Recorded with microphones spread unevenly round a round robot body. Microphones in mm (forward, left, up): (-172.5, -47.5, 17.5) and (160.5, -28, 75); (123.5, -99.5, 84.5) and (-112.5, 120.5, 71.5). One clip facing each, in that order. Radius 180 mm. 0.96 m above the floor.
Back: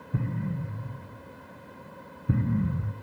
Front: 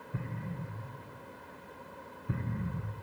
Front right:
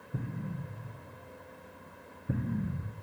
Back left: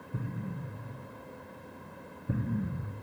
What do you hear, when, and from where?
0.1 s an explosion: 135° right, 0.5 m